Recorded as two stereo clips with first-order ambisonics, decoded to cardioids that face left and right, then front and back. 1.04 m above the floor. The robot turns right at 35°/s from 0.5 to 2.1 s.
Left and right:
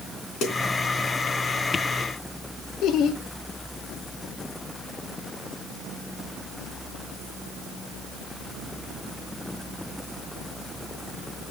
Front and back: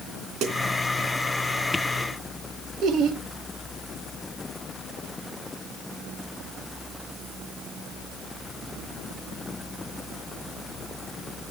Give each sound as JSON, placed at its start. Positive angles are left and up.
{"t": 0.4, "sound": "a snare drum", "azimuth_deg": 135, "distance_m": 3.0}
{"t": 2.8, "sound": "laughter", "azimuth_deg": 135, "distance_m": 1.5}